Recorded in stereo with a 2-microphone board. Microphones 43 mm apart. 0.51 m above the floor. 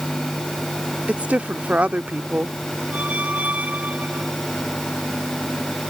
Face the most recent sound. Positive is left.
turn(degrees=-35)  # may be behind; listen again after turning